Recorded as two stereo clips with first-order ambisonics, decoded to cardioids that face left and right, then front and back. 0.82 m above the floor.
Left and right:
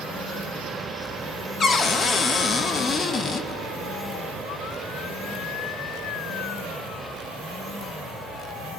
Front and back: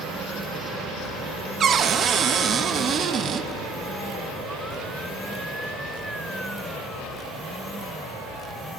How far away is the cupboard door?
About 0.6 m.